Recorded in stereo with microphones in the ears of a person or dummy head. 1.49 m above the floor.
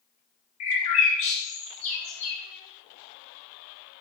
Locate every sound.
0.6 s a bird: 35° left (ahead or behind), 1.2 m